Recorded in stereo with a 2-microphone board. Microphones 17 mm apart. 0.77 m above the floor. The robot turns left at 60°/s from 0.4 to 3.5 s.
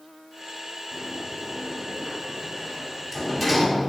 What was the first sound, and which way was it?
A sliding door, 25° left (ahead or behind).